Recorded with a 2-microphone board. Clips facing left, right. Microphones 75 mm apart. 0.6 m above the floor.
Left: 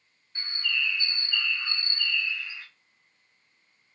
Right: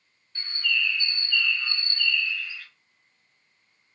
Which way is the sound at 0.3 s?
20° left (ahead or behind).